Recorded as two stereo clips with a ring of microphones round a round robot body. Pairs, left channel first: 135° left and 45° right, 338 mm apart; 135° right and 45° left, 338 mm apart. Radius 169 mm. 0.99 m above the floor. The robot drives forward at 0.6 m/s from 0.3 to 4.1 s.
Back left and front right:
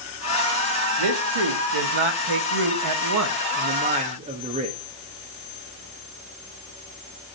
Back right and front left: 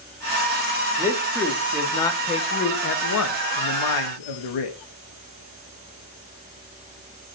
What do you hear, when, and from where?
1.0 s a man speaking: 35° right, 1.7 m; by 4.8 s 115° right, 1.2 m